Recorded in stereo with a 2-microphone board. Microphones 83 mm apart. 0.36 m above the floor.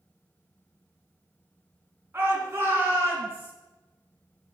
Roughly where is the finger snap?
No finger snap in this recording.